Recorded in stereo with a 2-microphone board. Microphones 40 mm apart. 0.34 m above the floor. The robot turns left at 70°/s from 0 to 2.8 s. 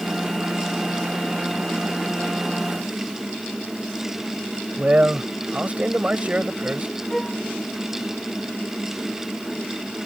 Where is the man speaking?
35° right (ahead or behind).